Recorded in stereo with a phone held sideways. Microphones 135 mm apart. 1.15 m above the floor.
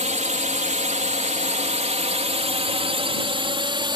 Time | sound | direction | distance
0.0 | a drone | 60° right (ahead or behind) | ?